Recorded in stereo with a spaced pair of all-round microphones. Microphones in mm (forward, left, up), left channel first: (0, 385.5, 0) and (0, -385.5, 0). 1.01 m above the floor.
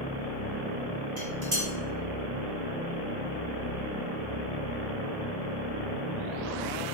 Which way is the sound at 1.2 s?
70° right (ahead or behind).